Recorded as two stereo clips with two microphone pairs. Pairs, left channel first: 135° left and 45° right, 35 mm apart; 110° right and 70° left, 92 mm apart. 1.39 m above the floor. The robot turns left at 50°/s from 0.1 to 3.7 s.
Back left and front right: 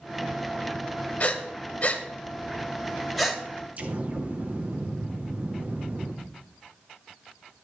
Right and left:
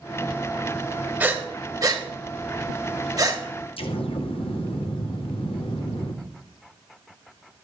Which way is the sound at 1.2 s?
140° left.